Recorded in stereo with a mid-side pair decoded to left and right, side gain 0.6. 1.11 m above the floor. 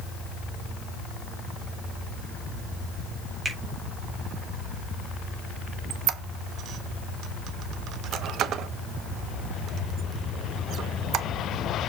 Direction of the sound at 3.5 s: 20° right.